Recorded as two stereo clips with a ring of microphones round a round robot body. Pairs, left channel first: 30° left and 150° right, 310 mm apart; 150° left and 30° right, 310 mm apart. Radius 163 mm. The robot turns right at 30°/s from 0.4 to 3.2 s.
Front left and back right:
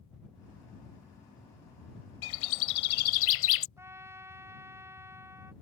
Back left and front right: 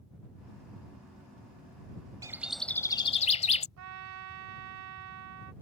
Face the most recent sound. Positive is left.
turn(degrees=-70)